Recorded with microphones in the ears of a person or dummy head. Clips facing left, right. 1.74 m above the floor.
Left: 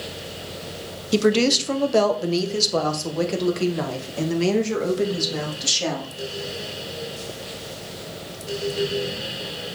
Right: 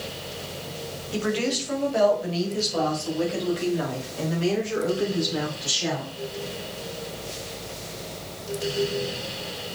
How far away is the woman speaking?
About 1.1 m.